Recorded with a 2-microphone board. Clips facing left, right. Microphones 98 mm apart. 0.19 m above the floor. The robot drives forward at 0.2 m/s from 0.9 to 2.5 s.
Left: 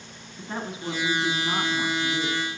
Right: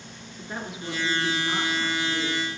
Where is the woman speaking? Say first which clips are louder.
Left 2 dB; 35° left (ahead or behind), 1.8 m.